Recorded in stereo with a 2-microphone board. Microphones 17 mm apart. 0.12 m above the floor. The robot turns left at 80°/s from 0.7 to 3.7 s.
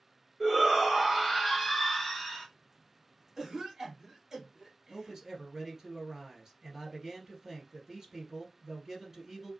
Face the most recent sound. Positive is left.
turn(degrees=-35)  # may be behind; listen again after turning